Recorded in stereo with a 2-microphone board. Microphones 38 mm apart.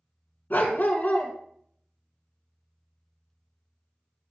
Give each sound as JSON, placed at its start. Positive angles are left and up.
{"t": 0.5, "sound": "a dog barking", "side_deg": 55, "distance_m": 1.0}